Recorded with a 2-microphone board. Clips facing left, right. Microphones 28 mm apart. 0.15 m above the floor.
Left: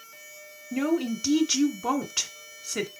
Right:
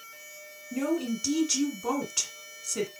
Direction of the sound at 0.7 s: 25° left (ahead or behind).